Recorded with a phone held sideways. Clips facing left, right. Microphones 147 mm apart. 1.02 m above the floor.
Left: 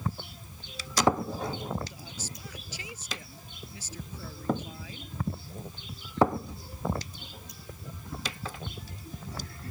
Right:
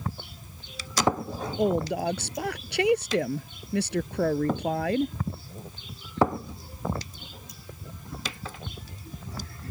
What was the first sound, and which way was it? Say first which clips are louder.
A woman speaking: right 13 dB; 80° right.